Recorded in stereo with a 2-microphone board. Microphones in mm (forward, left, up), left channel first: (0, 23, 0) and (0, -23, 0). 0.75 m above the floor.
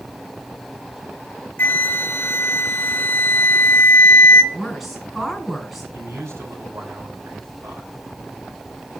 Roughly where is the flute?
Left.